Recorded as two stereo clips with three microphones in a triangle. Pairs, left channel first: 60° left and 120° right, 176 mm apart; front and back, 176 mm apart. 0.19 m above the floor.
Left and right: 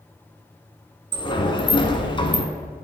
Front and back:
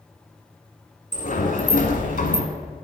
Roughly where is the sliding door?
Ahead.